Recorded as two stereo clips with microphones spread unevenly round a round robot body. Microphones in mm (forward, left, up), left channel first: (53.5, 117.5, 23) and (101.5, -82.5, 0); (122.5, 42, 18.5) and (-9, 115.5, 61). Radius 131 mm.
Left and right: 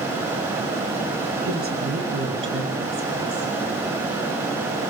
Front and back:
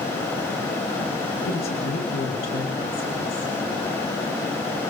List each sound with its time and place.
1.4 s a woman speaking: 30° right, 5.5 m; by 3.5 s 65° right, 6 m